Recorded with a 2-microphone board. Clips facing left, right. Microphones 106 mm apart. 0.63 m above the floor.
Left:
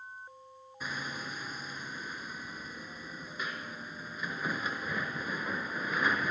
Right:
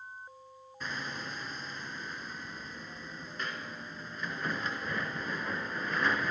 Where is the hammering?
5° left (ahead or behind), 2 m.